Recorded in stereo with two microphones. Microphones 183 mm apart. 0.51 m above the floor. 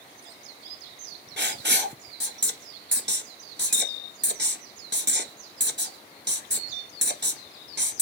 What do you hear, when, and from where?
1.4 s writing: 75° right (ahead or behind), 1.4 m